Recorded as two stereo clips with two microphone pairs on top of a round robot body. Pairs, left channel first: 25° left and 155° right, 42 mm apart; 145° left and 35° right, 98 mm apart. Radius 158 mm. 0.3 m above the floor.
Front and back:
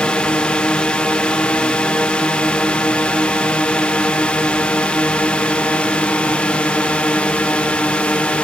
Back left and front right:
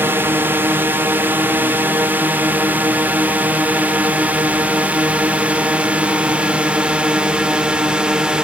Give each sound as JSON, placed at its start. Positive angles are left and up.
{"t": 0.0, "sound": "a drone", "azimuth_deg": 10}